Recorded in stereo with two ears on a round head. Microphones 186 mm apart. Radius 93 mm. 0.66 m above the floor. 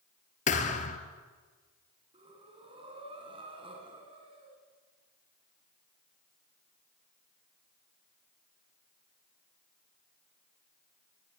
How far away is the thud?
About 2.5 m.